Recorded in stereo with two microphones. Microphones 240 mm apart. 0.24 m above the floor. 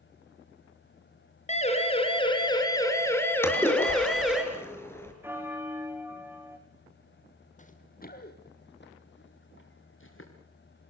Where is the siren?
25° left (ahead or behind), 4 m; by 4.4 s centre (ahead or behind), 4 m.